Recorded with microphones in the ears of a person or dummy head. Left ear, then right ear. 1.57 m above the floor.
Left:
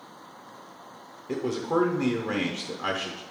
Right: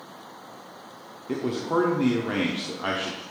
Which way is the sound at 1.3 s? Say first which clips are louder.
Right 1 dB; centre (ahead or behind).